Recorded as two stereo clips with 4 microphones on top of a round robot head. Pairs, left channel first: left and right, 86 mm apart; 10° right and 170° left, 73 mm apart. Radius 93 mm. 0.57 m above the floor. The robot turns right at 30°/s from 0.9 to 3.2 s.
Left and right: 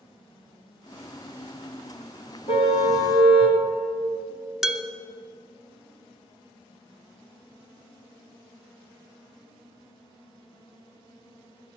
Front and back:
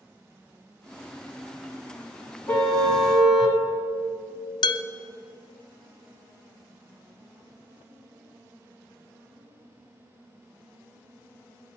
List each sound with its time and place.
2.5 s a car horn: 65° left, 2.5 m; by 3.6 s 85° left, 2.5 m
4.6 s dishes clattering: straight ahead, 0.8 m